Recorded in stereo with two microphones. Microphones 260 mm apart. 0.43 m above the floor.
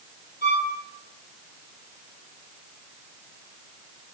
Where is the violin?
30° right (ahead or behind), 1.7 m.